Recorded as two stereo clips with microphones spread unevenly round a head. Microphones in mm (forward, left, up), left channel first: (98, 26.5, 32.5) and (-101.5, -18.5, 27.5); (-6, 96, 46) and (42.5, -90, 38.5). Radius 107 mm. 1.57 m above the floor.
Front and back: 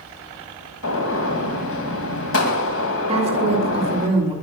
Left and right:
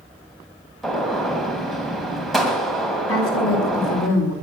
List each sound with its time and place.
0.8 s a gunshot: 15° left, 2.5 m
3.1 s a woman speaking: 130° left, 4 m